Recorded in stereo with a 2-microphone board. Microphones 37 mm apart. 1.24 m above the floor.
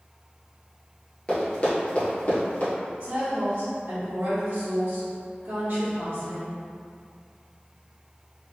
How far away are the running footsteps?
About 1.3 m.